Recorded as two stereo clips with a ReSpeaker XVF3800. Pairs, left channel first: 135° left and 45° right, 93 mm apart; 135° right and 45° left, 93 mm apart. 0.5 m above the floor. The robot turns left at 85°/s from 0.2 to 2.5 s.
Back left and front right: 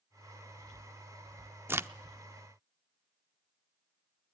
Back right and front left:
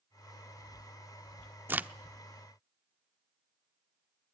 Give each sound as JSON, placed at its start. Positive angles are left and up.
{"t": 1.7, "sound": "a crack", "azimuth_deg": -5, "distance_m": 0.6}